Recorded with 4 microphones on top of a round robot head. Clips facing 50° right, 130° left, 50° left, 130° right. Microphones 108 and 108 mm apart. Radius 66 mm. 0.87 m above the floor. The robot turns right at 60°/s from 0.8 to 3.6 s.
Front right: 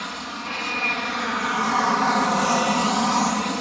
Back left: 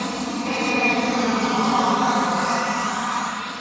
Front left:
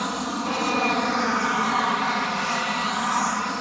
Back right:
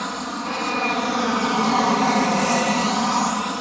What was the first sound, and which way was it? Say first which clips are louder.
An aircraft: back left 7 dB, front left 1 dB; 130° left.